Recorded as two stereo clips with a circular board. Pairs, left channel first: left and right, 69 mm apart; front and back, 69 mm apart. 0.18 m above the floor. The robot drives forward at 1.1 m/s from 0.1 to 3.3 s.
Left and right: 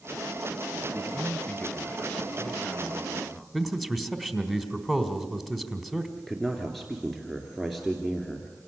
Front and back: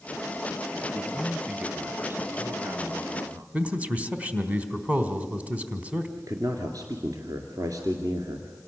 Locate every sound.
0.9 s a man speaking: 65° left, 1.4 m; by 3.4 s 165° left, 2.5 m
3.5 s a man speaking: straight behind, 1.5 m
6.2 s a man speaking: straight behind, 2 m